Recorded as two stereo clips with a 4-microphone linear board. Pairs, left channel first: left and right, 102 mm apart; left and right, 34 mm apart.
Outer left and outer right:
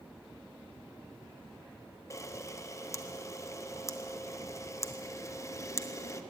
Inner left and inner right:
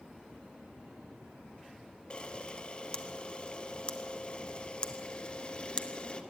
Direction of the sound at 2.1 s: 30° left (ahead or behind).